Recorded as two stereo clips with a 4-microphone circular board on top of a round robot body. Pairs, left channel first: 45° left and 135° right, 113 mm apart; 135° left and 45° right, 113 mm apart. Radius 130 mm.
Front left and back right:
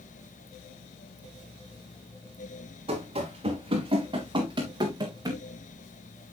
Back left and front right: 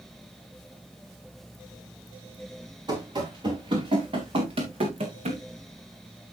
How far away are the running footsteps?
About 4 m.